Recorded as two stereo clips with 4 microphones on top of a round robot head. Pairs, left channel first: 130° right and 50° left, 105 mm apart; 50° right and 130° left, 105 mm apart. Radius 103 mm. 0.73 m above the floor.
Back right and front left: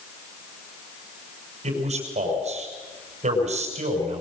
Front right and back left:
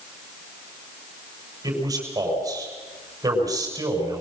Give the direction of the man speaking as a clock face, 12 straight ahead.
10 o'clock.